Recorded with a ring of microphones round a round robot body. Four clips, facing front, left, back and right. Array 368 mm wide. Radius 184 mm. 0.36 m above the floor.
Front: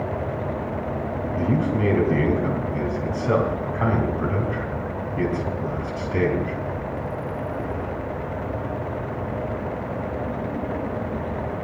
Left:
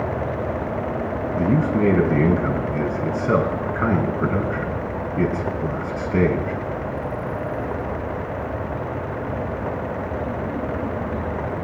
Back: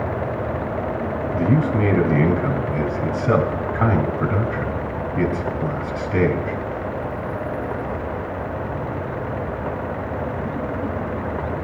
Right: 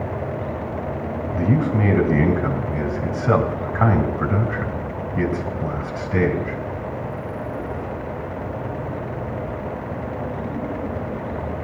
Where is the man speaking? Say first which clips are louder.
Left 1 dB, back 3 dB; 100° right, 3.5 m.